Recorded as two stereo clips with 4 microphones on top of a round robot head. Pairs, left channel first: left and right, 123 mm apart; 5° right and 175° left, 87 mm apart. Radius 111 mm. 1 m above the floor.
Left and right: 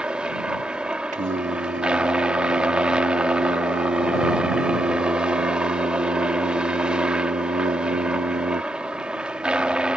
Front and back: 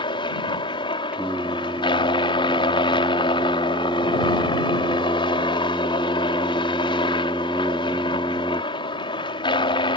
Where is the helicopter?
10° right.